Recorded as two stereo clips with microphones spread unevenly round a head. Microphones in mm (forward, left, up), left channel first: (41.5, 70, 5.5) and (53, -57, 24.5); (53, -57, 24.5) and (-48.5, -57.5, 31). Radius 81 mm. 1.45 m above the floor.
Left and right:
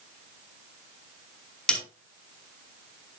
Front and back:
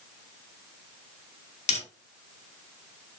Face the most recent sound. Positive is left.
turn(degrees=10)